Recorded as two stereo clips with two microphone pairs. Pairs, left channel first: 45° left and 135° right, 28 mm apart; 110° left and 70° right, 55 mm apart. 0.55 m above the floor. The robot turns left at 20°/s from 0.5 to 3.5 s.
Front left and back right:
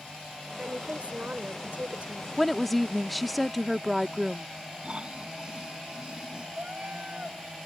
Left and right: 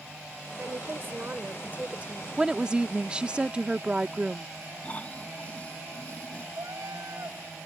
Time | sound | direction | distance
0.6 | a woman speaking | 105° right | ?
2.4 | a woman speaking | 25° right | ?
4.8 | snoring | 170° left | ?
6.5 | a cat meowing | 85° right | ?